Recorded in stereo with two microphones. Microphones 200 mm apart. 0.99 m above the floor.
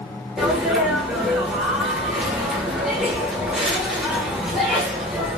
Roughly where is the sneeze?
Centre.